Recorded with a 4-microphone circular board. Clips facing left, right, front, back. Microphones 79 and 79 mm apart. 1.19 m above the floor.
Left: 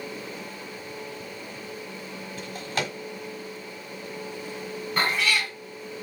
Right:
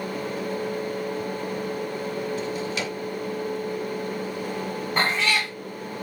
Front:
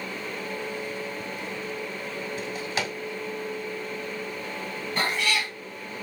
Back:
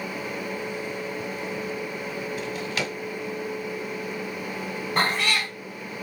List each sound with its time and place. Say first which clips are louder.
2.4 s a drawer: right 3 dB, front 1 dB; 55° left, 1.3 m
5.0 s a cat meowing: right 1 dB, back 2 dB; 140° right, 1.7 m